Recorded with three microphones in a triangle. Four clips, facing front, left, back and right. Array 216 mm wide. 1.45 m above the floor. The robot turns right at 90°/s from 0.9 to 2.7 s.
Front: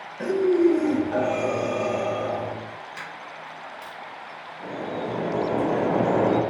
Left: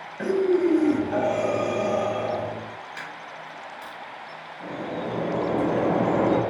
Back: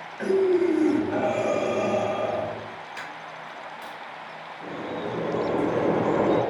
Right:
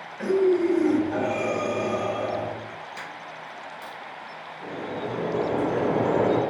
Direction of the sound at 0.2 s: 85° left.